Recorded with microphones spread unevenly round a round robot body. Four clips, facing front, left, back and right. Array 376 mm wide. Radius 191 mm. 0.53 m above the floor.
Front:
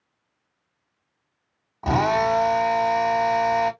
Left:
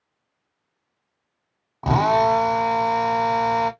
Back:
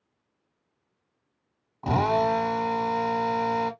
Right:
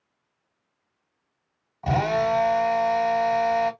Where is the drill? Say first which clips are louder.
Left 5 dB, front 3 dB; 75° left, 2 m.